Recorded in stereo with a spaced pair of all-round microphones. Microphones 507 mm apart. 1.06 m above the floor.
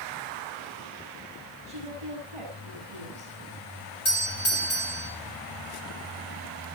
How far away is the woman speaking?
About 6.5 m.